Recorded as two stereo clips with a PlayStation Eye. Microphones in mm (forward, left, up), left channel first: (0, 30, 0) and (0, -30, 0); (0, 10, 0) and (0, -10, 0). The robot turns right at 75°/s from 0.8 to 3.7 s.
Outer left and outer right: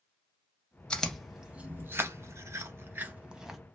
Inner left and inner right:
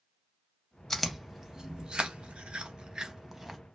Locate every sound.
0.9 s chewing: 15° left (ahead or behind), 0.5 m; by 3.6 s centre (ahead or behind), 0.5 m